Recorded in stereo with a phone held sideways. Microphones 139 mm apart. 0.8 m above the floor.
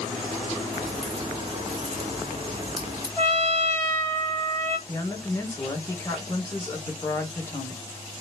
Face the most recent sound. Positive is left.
turn(degrees=15)  # may be behind; listen again after turning